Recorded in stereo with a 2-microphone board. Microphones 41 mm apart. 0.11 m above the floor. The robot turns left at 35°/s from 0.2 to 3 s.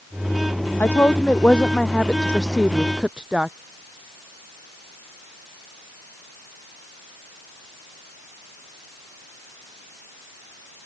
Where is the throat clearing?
I don't hear throat clearing.